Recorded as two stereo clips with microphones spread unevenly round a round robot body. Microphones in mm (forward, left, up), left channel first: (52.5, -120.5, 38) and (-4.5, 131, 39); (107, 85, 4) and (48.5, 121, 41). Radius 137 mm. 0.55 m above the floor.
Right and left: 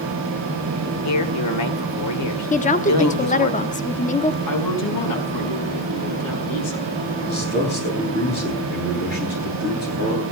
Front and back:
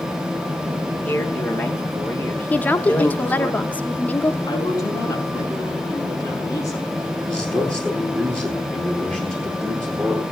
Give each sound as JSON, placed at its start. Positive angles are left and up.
{"t": 1.1, "sound": "a man speaking", "azimuth_deg": -90, "distance_m": 2.0}
{"t": 2.5, "sound": "a woman speaking", "azimuth_deg": -25, "distance_m": 1.2}
{"t": 4.5, "sound": "a woman speaking", "azimuth_deg": -75, "distance_m": 5.0}
{"t": 7.2, "sound": "a man speaking", "azimuth_deg": -135, "distance_m": 9.5}